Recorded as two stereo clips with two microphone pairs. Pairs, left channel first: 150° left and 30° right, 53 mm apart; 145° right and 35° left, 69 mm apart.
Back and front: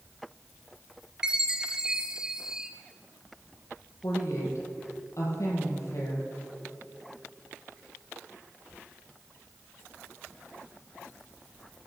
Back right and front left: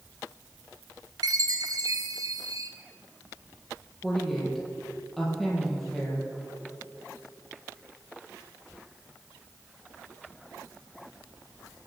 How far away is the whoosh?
I don't hear a whoosh.